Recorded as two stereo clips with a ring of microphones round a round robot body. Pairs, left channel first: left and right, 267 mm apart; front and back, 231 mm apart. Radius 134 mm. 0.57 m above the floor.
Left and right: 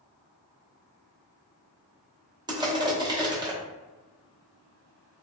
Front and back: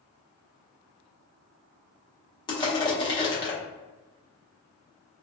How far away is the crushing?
About 0.7 m.